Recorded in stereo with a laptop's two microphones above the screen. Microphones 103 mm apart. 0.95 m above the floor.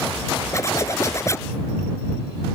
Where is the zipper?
25° left (ahead or behind).